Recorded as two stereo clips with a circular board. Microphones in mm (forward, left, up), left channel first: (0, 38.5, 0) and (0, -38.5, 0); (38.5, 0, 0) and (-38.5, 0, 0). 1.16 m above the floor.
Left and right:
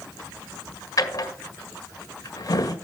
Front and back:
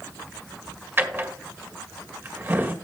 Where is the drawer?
120° left, 1.6 m.